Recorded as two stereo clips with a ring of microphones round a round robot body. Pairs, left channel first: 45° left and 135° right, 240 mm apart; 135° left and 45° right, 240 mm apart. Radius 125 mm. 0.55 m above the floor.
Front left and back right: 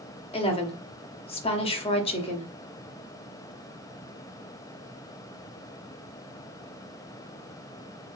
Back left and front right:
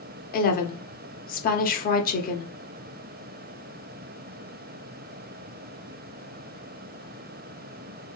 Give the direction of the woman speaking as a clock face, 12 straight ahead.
9 o'clock.